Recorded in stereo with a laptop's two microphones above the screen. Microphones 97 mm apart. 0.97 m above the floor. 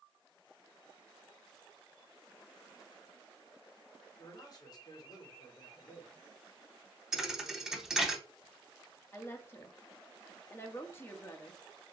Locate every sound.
4.2 s a man speaking: 45° left (ahead or behind), 2.5 m
7.1 s a thud: 5° right (ahead or behind), 0.7 m
9.1 s a woman speaking: 25° left (ahead or behind), 1.4 m